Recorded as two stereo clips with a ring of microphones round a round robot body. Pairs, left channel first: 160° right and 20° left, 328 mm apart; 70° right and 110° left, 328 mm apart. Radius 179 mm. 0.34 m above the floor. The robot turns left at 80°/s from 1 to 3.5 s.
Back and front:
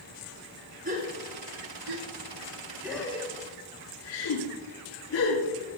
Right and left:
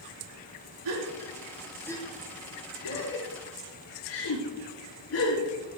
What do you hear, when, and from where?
0.8 s a gasp: 85° left, 6.5 m; by 5.8 s 115° right, 6.5 m